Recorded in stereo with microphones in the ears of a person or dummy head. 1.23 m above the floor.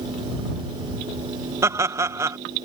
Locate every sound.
1.6 s laughter: 15° right (ahead or behind)